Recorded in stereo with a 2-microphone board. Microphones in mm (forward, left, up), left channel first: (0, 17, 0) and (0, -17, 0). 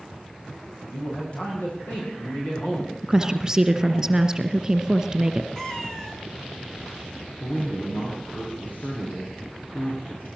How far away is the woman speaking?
About 1.9 m.